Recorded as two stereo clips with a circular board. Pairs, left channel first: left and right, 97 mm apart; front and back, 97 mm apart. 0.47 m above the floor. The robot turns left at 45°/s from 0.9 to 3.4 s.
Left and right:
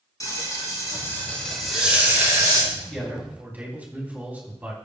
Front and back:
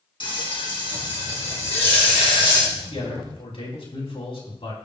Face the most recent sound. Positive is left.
turn(degrees=-15)